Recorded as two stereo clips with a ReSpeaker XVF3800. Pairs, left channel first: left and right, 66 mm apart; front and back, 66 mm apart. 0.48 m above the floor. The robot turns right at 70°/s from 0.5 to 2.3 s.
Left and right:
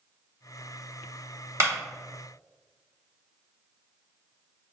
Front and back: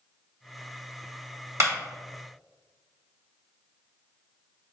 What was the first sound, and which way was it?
A clap, 135° right.